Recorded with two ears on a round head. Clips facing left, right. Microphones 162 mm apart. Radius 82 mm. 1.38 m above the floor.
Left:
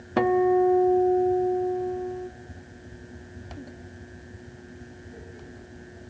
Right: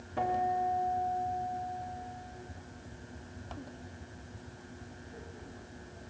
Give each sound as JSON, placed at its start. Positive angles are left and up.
{"t": 0.2, "sound": "a guitar", "side_deg": 85, "distance_m": 0.8}